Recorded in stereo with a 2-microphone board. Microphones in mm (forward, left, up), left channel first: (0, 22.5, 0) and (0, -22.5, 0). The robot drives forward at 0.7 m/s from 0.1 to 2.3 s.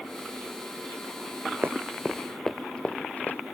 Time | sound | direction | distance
1.6 | running footsteps | 55° right (ahead or behind) | ?